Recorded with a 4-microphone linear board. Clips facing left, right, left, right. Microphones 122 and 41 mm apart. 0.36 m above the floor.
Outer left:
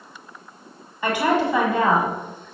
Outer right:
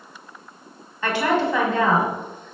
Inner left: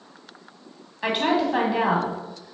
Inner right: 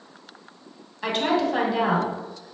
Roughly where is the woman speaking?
Centre.